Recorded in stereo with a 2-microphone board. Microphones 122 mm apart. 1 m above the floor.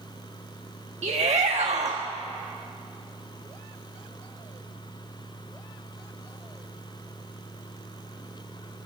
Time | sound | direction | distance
1.0 | a shout | 75° right (ahead or behind) | 1.3 m